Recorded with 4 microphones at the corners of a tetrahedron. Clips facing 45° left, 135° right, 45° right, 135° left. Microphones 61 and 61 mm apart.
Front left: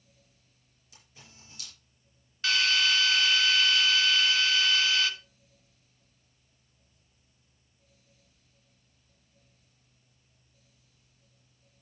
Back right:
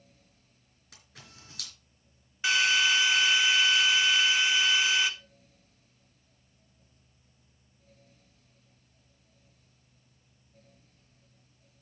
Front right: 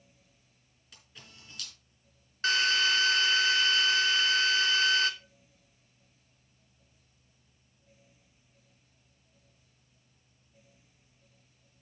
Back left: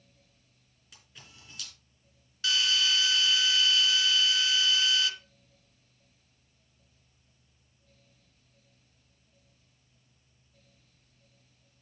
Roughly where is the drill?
Ahead right.